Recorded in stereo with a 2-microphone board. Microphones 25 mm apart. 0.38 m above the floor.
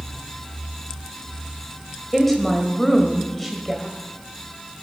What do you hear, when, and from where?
2.1 s a woman speaking: 5° left (ahead or behind), 1.7 m